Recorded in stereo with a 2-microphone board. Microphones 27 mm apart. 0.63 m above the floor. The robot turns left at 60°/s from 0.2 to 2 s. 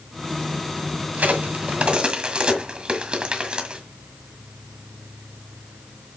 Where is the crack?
85° right, 1.6 m; by 3.8 s 45° right (ahead or behind), 1.6 m.